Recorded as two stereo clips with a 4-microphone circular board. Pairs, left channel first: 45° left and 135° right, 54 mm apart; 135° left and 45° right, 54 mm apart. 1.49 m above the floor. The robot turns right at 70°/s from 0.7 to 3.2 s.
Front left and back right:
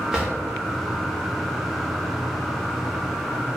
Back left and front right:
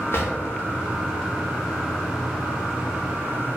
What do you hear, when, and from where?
0.1 s a drawer: 150° left, 1.0 m